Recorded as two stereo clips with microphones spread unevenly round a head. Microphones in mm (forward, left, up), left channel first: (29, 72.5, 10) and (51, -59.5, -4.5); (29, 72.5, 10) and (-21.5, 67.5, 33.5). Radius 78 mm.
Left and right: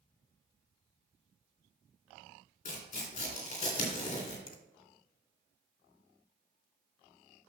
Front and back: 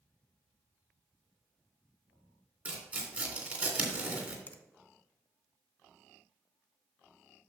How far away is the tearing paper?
About 3 m.